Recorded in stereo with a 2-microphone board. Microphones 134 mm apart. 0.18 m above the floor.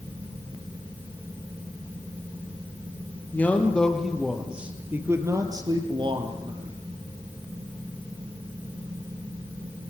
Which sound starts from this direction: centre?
A man speaking, at 3.3 s.